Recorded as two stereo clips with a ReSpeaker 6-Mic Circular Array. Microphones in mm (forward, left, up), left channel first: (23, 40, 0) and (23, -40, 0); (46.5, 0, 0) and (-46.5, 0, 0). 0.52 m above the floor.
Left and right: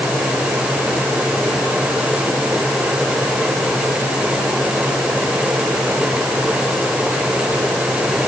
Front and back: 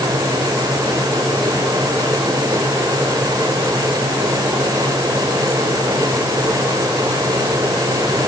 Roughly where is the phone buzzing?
No phone buzzing in this recording.